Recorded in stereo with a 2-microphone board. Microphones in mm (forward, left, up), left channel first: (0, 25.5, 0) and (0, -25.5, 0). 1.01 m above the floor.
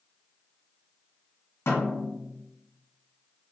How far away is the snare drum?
About 1.5 m.